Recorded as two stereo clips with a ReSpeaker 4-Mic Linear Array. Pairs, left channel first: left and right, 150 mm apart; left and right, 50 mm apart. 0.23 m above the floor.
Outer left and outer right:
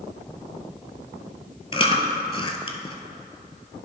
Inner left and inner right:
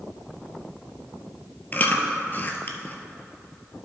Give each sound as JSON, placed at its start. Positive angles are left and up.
{"t": 1.7, "sound": "chewing", "side_deg": 35, "distance_m": 0.7}